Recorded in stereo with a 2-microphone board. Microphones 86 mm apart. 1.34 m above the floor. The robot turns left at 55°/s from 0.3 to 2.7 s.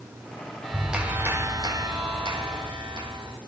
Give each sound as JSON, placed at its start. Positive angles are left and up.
{"t": 0.6, "sound": "a clap", "azimuth_deg": 10, "distance_m": 4.5}